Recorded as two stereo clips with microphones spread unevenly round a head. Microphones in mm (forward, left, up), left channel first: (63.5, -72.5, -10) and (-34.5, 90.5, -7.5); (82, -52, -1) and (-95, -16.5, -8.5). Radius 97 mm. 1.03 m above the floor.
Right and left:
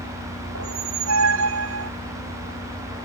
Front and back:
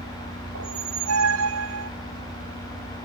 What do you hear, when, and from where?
0.6 s a squeak: 145° left